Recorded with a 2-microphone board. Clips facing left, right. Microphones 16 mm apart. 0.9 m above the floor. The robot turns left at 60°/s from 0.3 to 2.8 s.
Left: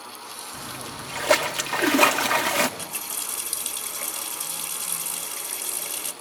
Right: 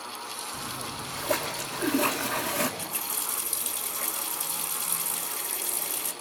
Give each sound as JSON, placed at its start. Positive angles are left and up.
{"t": 0.5, "sound": "a splash", "azimuth_deg": 180, "distance_m": 1.6}
{"t": 2.8, "sound": "a running tap", "side_deg": 30, "distance_m": 3.0}